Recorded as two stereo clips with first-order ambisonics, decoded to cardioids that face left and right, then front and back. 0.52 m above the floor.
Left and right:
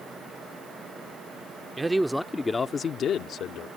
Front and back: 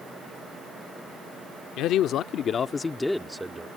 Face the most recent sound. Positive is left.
turn(degrees=110)